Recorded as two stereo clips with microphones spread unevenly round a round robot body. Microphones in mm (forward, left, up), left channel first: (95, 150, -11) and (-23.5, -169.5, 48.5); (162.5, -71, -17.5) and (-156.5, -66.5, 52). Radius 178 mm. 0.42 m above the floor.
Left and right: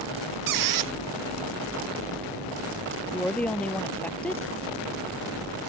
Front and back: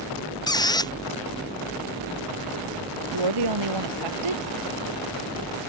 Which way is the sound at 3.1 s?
155° left.